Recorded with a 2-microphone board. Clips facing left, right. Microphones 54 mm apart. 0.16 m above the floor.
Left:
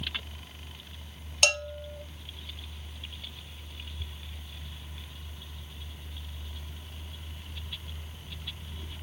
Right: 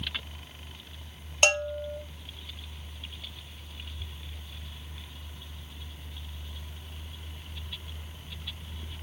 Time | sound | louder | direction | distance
1.4 | a bell | right 3 dB | 25° right (ahead or behind) | 0.5 m